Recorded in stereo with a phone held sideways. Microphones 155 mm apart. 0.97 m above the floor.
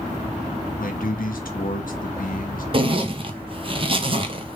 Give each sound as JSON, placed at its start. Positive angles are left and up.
{"t": 0.8, "sound": "a man speaking", "side_deg": 70, "distance_m": 0.9}
{"t": 2.7, "sound": "a zipper", "side_deg": -35, "distance_m": 0.5}